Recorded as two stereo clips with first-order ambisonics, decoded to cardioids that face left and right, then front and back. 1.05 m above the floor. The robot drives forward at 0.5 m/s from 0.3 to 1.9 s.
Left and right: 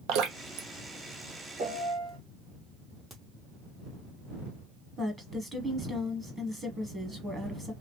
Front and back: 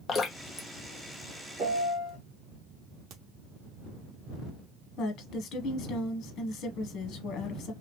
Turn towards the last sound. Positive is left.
turn(degrees=-25)